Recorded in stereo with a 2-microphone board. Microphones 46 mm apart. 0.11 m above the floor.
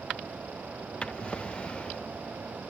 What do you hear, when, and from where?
1.0 s a drawer: 20° left (ahead or behind)